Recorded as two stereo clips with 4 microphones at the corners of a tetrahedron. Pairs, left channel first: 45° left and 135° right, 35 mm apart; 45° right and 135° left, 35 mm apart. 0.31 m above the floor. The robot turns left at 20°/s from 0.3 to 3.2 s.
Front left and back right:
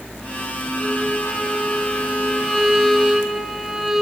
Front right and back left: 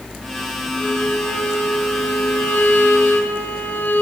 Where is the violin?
5° right, 3 m; by 4.0 s 50° right, 3 m.